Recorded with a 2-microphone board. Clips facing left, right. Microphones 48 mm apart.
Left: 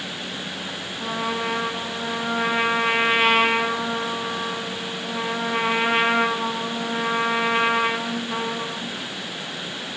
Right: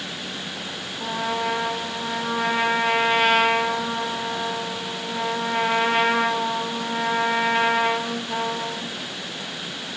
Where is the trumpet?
25° left (ahead or behind), 1.3 m.